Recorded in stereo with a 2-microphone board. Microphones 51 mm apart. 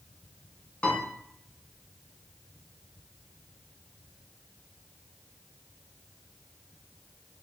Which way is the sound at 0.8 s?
25° left (ahead or behind).